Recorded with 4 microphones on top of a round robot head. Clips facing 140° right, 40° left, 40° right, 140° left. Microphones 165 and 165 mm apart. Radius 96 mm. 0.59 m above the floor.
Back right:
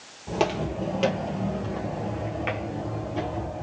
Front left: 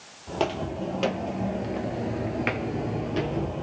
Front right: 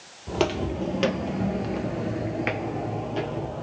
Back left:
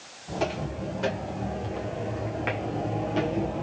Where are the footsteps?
60° right, 1.2 m; by 3.6 s 65° left, 1.0 m.